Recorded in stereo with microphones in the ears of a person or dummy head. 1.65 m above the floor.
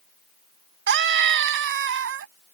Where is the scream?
60° right (ahead or behind); by 2.3 s 70° right (ahead or behind).